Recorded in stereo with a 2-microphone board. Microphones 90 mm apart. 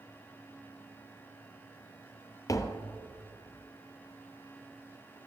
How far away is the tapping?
About 1.0 m.